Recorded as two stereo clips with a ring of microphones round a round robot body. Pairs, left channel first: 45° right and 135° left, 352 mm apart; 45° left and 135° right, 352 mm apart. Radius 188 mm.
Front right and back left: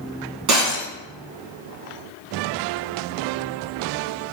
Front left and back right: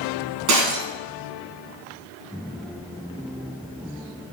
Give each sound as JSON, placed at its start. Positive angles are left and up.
{"t": 0.5, "sound": "breaking glass", "azimuth_deg": 180, "distance_m": 1.9}